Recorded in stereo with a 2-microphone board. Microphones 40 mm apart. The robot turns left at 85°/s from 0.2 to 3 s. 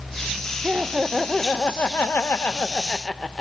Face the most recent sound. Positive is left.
turn(degrees=25)